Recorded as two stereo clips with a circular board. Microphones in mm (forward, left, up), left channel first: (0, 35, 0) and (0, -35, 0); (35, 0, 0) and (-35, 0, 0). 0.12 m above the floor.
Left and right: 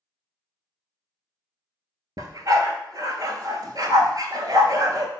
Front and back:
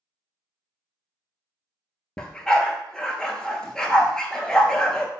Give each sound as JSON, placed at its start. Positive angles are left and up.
{"t": 2.2, "sound": "a dog barking", "azimuth_deg": -80, "distance_m": 0.5}